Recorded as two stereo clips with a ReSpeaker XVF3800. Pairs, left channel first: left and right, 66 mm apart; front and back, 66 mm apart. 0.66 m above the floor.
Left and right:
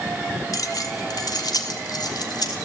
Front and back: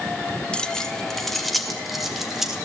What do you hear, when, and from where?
0.5 s keys jangling: 70° left, 1.1 m; by 2.6 s 95° left, 3 m